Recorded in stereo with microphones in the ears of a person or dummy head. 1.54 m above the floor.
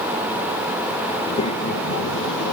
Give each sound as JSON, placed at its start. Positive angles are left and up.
{"t": 1.2, "sound": "a child speaking", "side_deg": 30, "distance_m": 1.6}